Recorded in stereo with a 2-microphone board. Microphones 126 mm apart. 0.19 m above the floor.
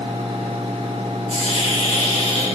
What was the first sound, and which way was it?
A hiss, 65° left (ahead or behind).